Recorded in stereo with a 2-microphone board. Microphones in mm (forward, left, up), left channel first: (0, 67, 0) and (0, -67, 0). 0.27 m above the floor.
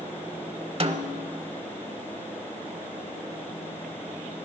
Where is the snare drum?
45° right (ahead or behind), 0.8 m.